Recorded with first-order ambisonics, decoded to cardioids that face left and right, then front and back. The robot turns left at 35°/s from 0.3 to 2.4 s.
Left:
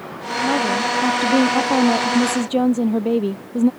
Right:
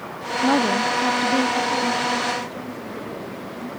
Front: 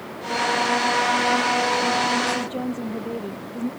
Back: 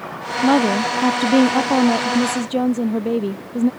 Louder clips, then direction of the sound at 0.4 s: Even, back 4 dB; 170° right.